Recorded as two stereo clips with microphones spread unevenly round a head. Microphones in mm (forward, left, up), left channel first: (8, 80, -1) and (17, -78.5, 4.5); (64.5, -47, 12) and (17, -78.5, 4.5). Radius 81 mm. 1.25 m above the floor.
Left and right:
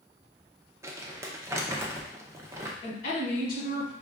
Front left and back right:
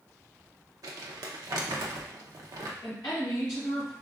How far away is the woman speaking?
About 1.4 m.